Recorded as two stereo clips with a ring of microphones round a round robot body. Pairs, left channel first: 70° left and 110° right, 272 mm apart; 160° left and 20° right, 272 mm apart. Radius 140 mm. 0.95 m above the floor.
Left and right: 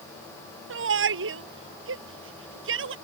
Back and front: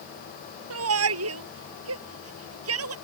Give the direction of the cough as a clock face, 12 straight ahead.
I don't hear a cough.